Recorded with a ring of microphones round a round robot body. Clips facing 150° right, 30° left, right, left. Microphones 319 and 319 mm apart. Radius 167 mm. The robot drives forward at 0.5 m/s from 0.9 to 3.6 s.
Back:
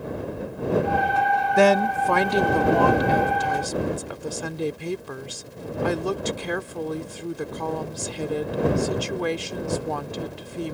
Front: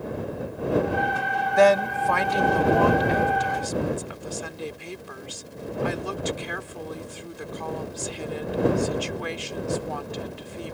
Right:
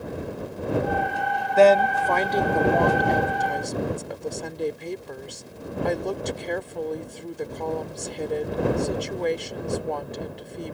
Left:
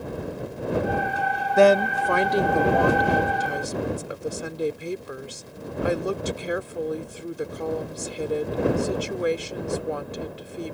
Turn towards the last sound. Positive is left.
turn(degrees=170)